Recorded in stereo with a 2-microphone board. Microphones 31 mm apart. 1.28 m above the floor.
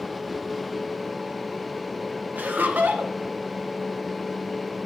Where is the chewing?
No chewing in this recording.